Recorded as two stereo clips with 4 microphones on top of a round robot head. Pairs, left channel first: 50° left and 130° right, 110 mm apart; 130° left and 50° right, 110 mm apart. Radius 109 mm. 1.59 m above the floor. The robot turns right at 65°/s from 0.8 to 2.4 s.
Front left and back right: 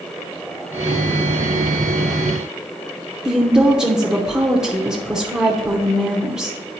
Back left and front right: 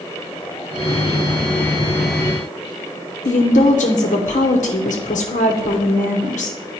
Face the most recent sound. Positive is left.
turn(degrees=145)